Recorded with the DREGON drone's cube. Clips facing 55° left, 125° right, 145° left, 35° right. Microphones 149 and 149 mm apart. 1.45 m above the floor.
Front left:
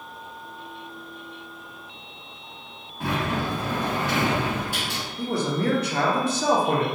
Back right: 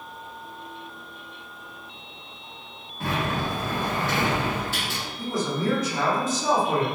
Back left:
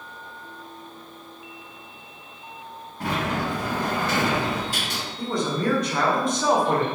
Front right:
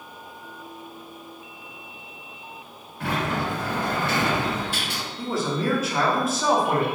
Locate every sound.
3.0 s a sliding door: 125° left, 1.7 m
5.2 s a man speaking: 50° left, 0.6 m